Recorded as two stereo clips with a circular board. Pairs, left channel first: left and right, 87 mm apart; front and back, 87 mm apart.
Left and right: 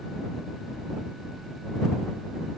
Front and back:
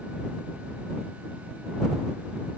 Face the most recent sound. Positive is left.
No sound to turn to.